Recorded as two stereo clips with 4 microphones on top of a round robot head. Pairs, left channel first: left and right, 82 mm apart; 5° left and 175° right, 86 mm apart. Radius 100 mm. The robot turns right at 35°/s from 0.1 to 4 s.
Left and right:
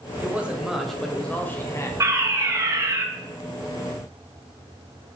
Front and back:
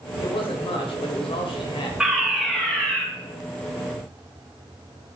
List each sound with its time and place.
0.2 s a man speaking: 25° right, 2 m; by 1.9 s 35° left, 2 m
2.0 s a fire alarm: 95° right, 2.5 m; by 3.0 s 60° right, 2.5 m